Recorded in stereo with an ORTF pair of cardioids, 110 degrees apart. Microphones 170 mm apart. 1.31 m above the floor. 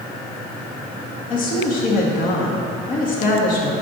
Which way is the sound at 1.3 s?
55° left.